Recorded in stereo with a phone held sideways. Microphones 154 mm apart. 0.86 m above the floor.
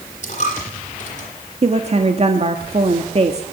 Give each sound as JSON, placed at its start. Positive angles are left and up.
{"t": 0.2, "sound": "a dropped coin", "side_deg": 50, "distance_m": 9.5}
{"t": 1.6, "sound": "a woman speaking", "side_deg": -45, "distance_m": 1.7}